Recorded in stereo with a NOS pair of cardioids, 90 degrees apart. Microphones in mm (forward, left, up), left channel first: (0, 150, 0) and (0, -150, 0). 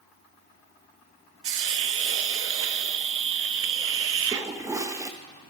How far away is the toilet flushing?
About 0.8 m.